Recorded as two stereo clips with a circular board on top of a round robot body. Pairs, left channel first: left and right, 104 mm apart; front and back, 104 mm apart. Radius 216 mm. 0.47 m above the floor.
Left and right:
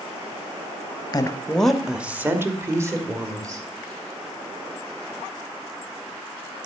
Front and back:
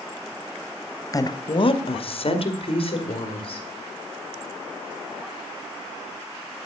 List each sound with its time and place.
1.1 s a woman speaking: 50° left, 0.9 m; by 3.6 s 35° right, 2.5 m